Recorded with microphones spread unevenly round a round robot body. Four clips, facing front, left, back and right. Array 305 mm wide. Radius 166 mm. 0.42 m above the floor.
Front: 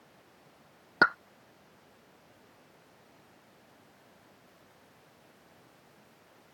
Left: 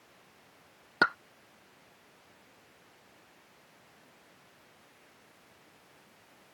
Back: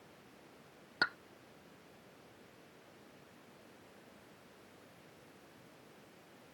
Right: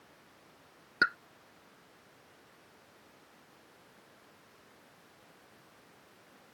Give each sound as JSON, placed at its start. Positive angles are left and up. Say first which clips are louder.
{"t": 1.0, "sound": "a pop", "louder": "left 3 dB, front 11 dB", "azimuth_deg": 25}